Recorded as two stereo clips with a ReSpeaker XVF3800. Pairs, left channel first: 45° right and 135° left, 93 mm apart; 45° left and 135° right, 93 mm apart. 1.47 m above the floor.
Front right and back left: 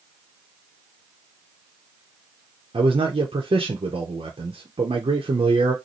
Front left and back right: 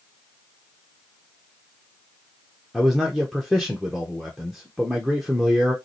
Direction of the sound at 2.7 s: 135° left.